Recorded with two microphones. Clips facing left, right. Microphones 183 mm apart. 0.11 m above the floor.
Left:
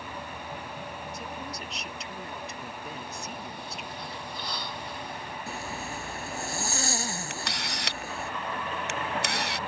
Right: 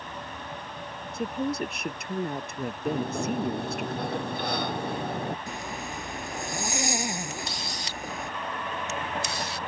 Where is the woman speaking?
55° right (ahead or behind).